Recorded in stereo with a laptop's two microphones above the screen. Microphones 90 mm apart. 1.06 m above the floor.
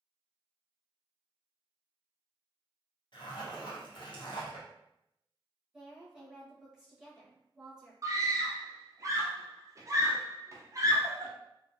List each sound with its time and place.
3.1 s a zipper: 55° left (ahead or behind), 0.7 m
5.7 s a woman speaking: 10° right (ahead or behind), 0.9 m
8.0 s a scream: 35° right (ahead or behind), 0.6 m